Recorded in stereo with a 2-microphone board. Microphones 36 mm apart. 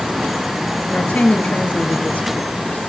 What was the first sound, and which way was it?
A woman speaking, 45° left (ahead or behind).